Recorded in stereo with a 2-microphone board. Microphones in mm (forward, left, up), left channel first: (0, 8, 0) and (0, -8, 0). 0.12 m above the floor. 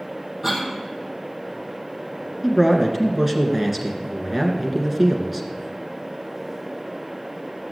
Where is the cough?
20° right (ahead or behind), 4 m.